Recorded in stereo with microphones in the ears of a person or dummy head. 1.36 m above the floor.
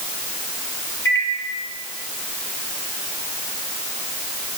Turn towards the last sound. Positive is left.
turn(degrees=15)  # may be behind; listen again after turning